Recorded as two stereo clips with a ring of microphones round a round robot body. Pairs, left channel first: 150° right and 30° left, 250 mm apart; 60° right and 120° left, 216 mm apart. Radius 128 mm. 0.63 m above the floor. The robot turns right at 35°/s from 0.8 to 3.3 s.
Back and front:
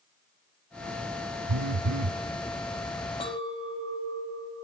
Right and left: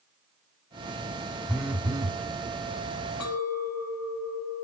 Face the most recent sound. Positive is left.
turn(degrees=-75)